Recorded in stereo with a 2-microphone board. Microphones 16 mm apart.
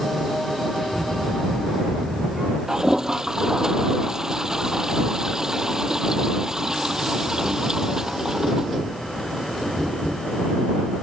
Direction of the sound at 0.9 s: 35° right (ahead or behind).